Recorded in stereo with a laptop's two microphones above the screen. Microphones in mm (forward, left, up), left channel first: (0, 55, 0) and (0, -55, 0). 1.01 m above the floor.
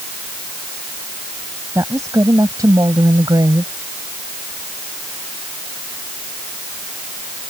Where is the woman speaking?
25° right (ahead or behind); by 3.7 s 40° right (ahead or behind).